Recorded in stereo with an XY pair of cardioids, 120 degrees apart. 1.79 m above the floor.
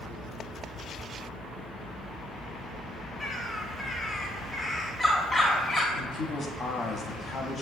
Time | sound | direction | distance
3.2 | a bird | 5° left | 0.9 m
6.0 | a man speaking | 40° left | 0.7 m